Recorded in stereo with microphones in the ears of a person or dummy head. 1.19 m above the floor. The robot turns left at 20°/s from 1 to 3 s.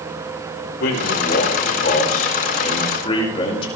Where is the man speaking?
75° left, 5.5 m; by 3.7 s 35° left, 5.5 m.